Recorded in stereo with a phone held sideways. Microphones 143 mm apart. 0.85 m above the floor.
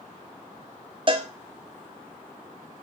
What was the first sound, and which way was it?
A cowbell, 35° right (ahead or behind).